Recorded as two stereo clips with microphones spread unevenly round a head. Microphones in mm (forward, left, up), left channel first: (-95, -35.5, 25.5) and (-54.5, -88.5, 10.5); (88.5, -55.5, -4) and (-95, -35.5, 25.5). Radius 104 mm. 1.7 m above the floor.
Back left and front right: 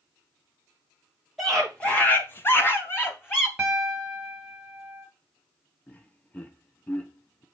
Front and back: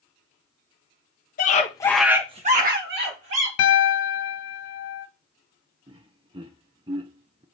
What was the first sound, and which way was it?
A scream, 45° left.